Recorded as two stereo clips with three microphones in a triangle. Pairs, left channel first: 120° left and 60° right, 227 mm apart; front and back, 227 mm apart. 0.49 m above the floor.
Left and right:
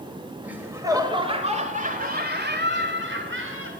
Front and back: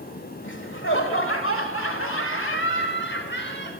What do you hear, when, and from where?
0.4 s laughter: 25° left, 1.9 m; by 3.7 s 40° right, 2.5 m